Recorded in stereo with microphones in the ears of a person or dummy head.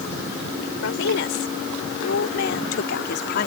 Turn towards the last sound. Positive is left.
turn(degrees=55)  # may be behind; listen again after turning